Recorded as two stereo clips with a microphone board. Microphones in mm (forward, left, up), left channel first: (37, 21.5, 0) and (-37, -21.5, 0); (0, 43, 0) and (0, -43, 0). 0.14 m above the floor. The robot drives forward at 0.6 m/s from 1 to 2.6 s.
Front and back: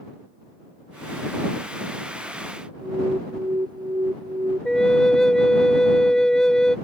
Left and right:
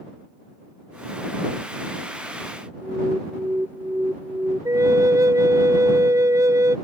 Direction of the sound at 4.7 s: 50° right.